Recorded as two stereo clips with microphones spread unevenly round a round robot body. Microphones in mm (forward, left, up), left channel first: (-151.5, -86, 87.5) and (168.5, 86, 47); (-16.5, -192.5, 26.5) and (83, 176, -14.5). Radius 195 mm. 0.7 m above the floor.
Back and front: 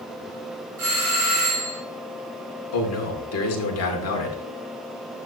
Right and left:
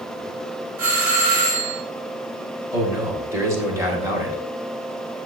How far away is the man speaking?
About 2 m.